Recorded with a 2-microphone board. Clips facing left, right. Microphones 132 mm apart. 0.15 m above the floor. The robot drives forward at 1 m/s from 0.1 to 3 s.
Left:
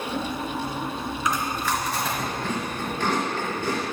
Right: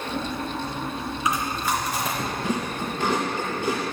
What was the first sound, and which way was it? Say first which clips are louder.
Chewing: right 1 dB; 15° right (ahead or behind).